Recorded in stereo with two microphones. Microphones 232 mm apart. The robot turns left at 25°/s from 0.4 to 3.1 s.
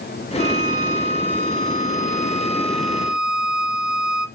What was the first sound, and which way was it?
A violin, 60° left.